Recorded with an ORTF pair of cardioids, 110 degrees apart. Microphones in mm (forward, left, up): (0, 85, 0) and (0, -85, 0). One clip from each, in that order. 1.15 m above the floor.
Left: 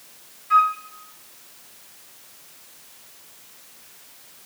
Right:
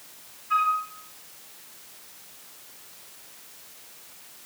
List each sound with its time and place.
0.5 s a flute: 35° left, 1.8 m